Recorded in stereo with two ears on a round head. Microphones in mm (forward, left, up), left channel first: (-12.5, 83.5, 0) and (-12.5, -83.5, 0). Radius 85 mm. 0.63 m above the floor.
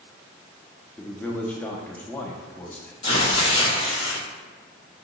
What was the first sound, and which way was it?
A man speaking, 10° left (ahead or behind).